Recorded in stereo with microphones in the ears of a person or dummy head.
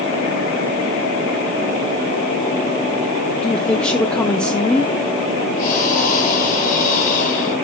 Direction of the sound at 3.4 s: 5° left (ahead or behind).